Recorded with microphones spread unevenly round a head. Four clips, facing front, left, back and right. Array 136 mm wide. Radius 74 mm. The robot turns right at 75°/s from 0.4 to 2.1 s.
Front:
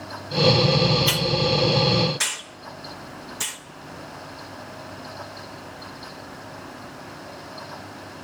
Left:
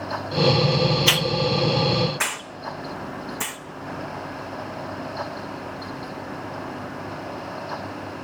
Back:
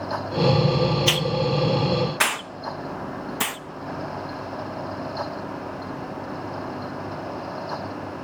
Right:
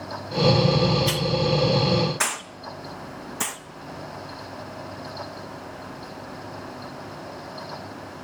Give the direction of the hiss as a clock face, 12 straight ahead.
8 o'clock.